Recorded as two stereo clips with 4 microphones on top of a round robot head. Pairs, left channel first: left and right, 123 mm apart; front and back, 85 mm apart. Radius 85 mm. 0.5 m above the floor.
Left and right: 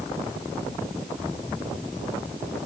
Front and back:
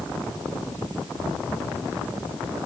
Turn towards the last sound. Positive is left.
No sound to turn to.